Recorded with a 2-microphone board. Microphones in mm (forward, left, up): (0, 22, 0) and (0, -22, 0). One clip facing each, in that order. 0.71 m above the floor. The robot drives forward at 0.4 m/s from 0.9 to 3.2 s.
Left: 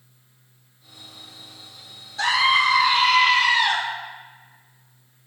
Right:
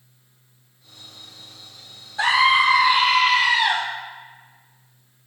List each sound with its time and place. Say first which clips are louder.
2.2 s a scream: right 2 dB; 20° right (ahead or behind), 0.5 m; by 3.8 s 15° right (ahead or behind), 0.7 m